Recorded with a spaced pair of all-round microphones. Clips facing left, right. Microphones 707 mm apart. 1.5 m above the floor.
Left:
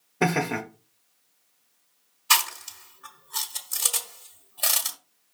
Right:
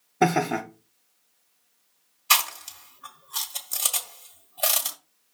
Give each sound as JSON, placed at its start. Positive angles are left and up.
{"t": 0.2, "sound": "laughter", "side_deg": 5, "distance_m": 0.8}
{"t": 2.3, "sound": "chewing", "side_deg": -5, "distance_m": 1.3}